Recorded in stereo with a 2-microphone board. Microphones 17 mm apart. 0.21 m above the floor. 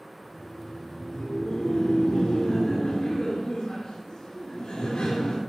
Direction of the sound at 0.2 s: 60° left (ahead or behind).